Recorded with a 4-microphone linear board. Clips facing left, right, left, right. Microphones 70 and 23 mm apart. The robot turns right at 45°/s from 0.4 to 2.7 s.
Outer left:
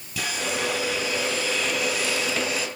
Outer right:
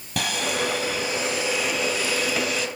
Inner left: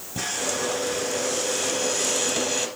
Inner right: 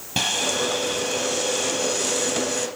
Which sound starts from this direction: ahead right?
Sawing, at 0.2 s.